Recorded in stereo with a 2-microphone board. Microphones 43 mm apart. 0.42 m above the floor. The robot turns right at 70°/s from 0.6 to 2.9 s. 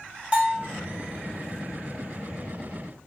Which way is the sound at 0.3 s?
25° right (ahead or behind).